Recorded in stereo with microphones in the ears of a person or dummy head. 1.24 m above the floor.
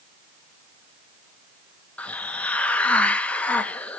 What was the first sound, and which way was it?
A hiss, 20° left (ahead or behind).